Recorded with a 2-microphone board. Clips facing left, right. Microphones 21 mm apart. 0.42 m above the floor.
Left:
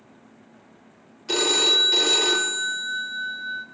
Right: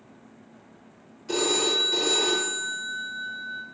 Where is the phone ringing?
45° left (ahead or behind), 0.8 m.